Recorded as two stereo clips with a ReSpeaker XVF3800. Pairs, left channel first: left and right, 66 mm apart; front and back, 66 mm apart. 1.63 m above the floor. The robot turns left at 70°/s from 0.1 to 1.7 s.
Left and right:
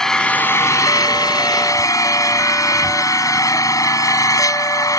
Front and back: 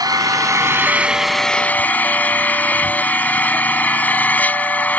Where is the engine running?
175° left; by 5.0 s 60° left.